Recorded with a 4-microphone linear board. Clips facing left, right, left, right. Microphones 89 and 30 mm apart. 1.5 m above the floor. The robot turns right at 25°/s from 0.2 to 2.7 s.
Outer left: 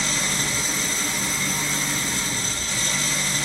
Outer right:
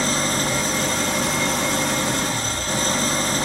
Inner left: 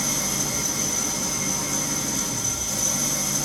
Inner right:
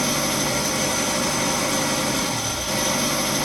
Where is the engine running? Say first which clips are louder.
Outer right 6 dB, inner right 5 dB; 125° right, 1.6 m; by 3.4 s 60° right, 1.6 m.